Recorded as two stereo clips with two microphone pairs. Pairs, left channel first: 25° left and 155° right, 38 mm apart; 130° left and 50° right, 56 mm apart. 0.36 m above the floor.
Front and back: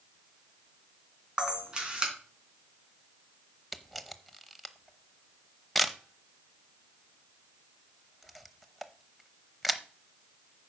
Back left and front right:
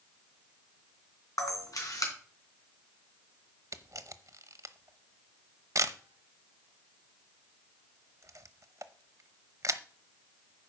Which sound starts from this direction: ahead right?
A camera shutter, at 3.7 s.